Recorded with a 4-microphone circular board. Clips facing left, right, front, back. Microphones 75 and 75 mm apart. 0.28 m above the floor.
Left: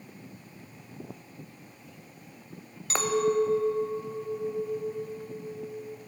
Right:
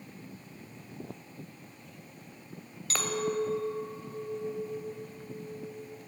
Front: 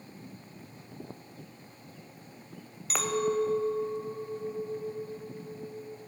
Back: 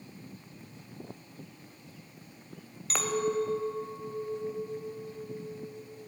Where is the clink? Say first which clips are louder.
Left 6 dB, front 1 dB; 85° left, 0.7 m.